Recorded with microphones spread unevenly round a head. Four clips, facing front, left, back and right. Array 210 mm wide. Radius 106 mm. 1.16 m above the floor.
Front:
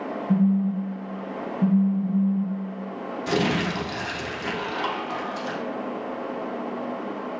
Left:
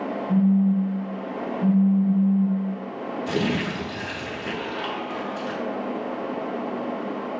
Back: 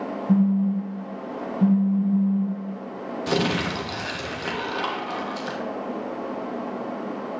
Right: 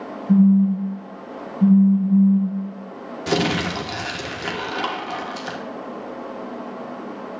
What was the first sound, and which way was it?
A phone buzzing, 140° right.